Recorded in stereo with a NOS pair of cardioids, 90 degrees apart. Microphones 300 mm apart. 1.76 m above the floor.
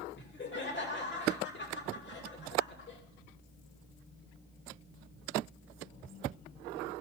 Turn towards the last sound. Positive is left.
turn(degrees=40)